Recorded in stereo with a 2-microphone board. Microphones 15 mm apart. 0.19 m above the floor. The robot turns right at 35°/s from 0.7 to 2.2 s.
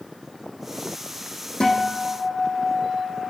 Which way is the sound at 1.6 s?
85° left.